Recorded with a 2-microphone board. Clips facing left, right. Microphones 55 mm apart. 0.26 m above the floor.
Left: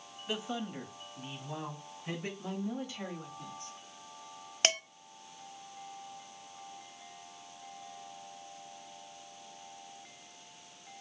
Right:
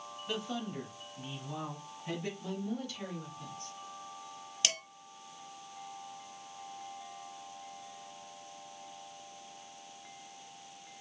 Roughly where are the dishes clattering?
Left.